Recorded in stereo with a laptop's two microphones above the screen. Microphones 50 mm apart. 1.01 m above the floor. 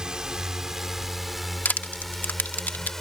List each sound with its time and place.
0.0 s a drone: 15° right (ahead or behind); by 3.0 s 5° left (ahead or behind)
1.6 s crushing: 40° left (ahead or behind)